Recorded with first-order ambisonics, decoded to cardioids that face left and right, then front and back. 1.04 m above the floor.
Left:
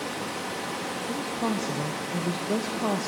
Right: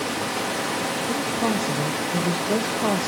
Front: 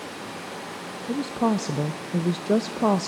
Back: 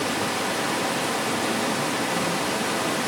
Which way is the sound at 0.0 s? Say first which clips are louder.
Right 6 dB, back 11 dB; 155° right.